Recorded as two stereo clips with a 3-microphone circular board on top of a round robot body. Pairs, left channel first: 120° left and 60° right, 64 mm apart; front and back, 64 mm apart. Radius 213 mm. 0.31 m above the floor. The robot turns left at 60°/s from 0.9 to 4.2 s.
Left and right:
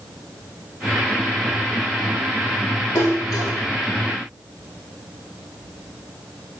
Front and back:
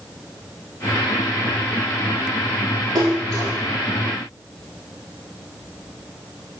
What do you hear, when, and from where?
3.0 s a splash: 170° left, 3 m; by 3.5 s 135° left, 3 m